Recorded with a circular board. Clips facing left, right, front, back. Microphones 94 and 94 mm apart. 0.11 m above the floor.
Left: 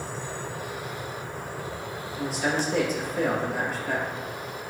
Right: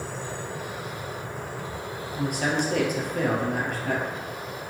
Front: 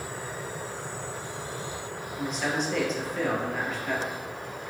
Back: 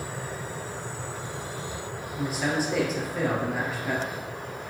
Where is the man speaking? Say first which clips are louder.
Right 1 dB, back 2 dB; 95° right, 2.5 m.